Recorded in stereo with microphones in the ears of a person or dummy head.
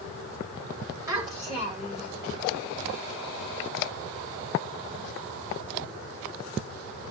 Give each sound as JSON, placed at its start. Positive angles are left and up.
{"t": 1.1, "sound": "a child speaking", "side_deg": -25, "distance_m": 3.5}